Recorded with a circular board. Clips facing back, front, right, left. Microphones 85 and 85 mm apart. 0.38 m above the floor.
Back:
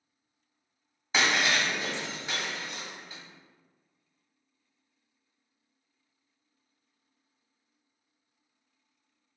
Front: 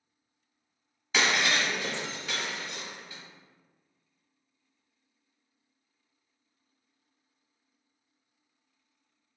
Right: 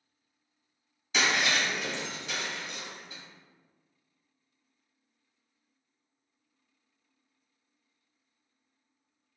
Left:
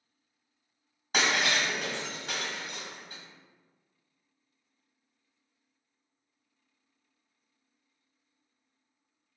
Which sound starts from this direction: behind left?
Breaking glass, at 1.1 s.